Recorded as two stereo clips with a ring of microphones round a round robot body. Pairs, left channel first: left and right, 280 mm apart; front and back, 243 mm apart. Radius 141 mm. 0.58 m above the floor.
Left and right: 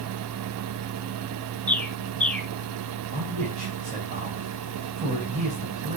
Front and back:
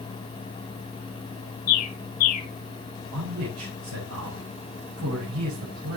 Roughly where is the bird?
Ahead.